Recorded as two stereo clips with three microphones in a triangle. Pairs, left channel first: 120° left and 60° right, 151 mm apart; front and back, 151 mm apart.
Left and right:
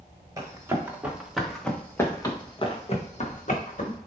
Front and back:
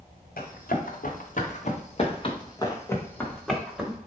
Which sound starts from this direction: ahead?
Running footsteps, at 0.4 s.